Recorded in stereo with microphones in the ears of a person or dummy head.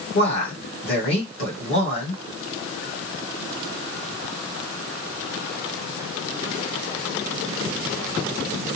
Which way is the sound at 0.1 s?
65° left (ahead or behind).